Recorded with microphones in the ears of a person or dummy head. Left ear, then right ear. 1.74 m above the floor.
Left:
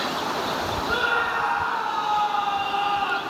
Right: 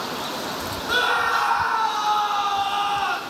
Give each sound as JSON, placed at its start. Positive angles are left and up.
{"t": 0.9, "sound": "a scream", "side_deg": -70, "distance_m": 1.6}